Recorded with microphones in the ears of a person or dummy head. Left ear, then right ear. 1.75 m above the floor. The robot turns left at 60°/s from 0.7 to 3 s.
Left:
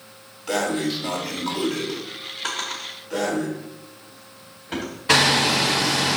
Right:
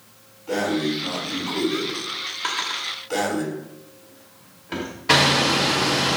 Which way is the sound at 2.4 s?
25° right (ahead or behind).